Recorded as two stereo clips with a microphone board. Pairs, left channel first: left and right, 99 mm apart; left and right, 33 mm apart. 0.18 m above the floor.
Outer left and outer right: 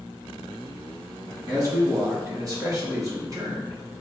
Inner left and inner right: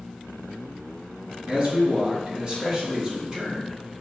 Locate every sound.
1.5 s a man speaking: 40° right (ahead or behind), 1.6 m